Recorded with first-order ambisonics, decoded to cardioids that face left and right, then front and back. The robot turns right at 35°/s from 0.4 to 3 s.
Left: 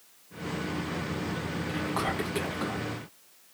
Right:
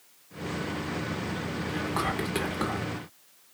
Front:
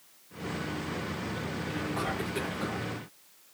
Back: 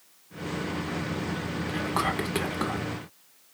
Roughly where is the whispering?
Behind.